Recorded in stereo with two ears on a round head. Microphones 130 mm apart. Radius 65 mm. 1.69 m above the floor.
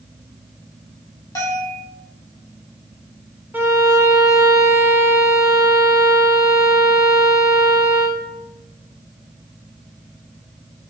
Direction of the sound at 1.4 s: 20° left (ahead or behind).